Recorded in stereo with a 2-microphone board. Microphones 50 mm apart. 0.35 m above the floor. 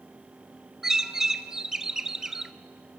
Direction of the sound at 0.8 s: 10° right (ahead or behind).